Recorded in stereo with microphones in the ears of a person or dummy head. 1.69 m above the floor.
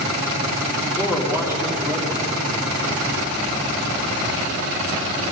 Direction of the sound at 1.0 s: 20° left (ahead or behind).